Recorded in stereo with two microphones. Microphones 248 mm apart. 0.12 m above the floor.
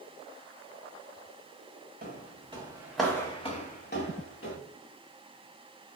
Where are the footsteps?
40° right (ahead or behind), 0.9 m; by 4.6 s 60° left (ahead or behind), 1.1 m.